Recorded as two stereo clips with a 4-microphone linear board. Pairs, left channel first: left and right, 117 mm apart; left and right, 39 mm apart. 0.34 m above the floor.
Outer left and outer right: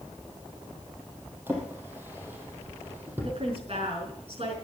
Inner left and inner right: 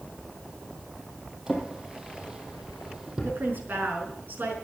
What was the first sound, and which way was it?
A drawer, 20° right (ahead or behind).